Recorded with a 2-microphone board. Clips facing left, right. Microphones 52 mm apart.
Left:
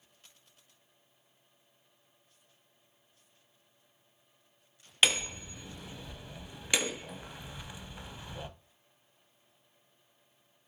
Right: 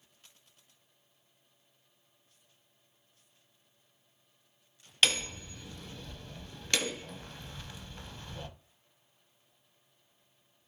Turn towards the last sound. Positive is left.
turn(degrees=10)  # may be behind; listen again after turning